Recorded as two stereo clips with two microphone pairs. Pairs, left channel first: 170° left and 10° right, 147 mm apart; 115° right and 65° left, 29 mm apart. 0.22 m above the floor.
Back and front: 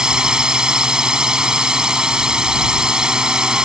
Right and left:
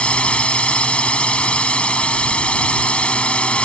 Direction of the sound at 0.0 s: 95° right.